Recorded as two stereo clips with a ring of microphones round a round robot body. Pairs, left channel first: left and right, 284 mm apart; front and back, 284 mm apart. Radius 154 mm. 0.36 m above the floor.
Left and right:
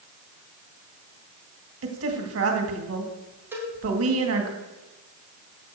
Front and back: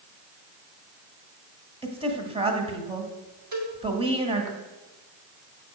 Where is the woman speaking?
115° right, 2 m.